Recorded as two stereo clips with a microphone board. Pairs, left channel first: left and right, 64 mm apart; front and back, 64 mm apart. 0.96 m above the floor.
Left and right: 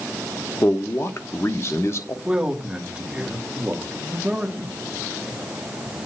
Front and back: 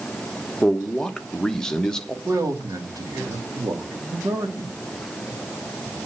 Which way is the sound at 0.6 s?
75° left.